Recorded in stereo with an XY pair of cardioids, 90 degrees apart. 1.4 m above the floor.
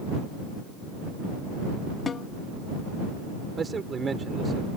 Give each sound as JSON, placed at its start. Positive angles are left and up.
{"t": 2.1, "sound": "a snare drum", "azimuth_deg": 45}
{"t": 3.5, "sound": "a man speaking", "azimuth_deg": -40}